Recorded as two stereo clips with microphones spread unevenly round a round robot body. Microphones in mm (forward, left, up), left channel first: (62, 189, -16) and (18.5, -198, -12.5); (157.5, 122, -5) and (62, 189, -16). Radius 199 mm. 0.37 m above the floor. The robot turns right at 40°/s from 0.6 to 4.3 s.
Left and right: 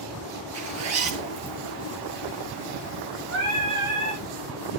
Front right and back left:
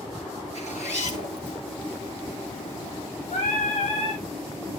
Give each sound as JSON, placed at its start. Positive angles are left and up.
{"t": 0.5, "sound": "a zipper", "azimuth_deg": -110, "distance_m": 6.0}
{"t": 3.3, "sound": "singing", "azimuth_deg": -35, "distance_m": 6.5}